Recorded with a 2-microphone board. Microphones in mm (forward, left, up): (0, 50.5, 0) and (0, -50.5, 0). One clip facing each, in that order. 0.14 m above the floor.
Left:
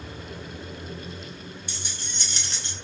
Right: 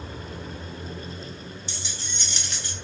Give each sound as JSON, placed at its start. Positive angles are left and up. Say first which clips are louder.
{"t": 1.7, "sound": "keys jangling", "louder": "right 1 dB", "side_deg": 55, "distance_m": 1.2}